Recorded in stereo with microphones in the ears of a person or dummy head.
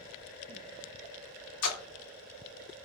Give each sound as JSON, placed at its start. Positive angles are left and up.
{"t": 1.6, "sound": "a splash", "side_deg": 75, "distance_m": 1.4}